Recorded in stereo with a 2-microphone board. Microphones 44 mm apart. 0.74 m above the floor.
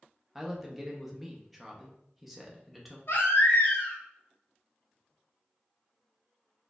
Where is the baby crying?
75° left (ahead or behind), 1.0 m.